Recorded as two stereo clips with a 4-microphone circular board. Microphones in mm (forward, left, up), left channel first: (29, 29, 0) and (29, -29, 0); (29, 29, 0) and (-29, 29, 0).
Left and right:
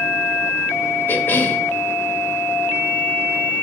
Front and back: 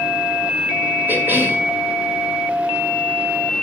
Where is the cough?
135° left, 1.5 m.